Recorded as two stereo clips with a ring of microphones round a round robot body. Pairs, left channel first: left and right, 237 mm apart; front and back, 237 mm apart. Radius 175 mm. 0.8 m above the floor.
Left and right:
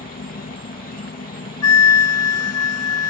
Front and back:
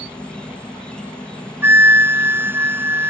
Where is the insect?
85° left.